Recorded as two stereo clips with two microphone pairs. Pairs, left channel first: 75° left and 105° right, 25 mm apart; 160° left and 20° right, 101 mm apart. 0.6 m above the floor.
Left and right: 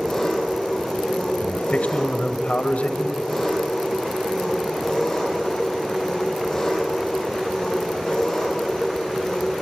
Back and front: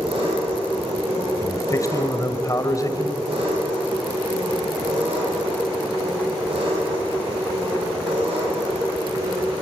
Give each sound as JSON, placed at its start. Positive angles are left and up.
{"t": 0.0, "sound": "an engine running", "azimuth_deg": 0, "distance_m": 10.0}
{"t": 1.4, "sound": "a man speaking", "azimuth_deg": 100, "distance_m": 2.5}